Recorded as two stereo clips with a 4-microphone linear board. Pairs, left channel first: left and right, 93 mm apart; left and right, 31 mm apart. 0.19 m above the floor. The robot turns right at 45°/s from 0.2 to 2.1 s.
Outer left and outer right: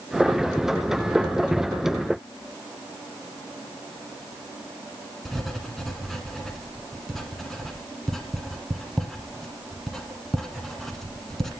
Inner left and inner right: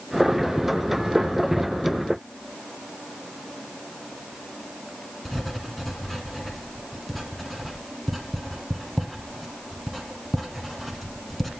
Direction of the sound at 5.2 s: 5° left (ahead or behind).